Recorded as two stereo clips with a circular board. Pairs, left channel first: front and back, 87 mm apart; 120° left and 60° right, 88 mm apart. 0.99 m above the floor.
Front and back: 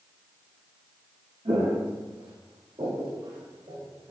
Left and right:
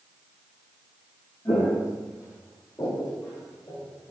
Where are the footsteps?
175° left, 2.5 m; by 4.1 s 170° left, 3.5 m.